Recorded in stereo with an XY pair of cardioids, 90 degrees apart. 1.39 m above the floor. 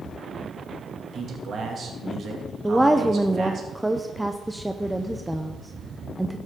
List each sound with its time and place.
1.1 s a man speaking: 55° right, 2.5 m
2.6 s a woman speaking: 5° right, 0.7 m